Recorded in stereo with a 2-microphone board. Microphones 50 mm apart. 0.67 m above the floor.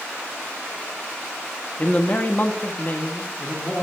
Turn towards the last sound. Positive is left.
turn(degrees=30)  # may be behind; listen again after turning